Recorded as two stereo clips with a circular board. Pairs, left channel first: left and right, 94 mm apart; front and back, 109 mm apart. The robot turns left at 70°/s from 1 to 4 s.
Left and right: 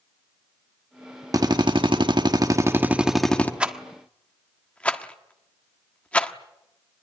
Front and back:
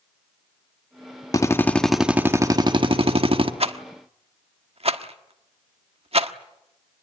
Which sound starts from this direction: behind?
A rattle, at 3.6 s.